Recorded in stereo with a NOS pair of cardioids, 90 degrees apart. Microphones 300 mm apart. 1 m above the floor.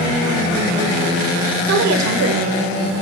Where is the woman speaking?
70° right, 4.5 m; by 2.9 s 50° right, 3.5 m.